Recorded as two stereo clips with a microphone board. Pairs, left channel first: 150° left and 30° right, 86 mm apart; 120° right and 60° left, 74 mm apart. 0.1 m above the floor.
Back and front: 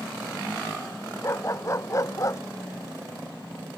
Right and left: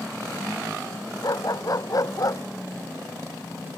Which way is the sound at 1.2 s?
155° right.